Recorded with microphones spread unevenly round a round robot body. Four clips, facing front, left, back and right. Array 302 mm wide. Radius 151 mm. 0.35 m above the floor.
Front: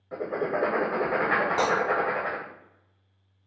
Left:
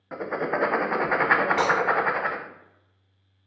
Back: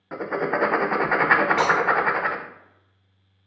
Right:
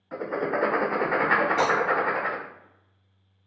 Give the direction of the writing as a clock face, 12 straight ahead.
7 o'clock.